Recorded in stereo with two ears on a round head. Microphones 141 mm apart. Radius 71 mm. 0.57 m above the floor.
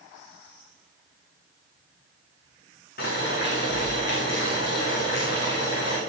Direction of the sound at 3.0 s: 60° left (ahead or behind).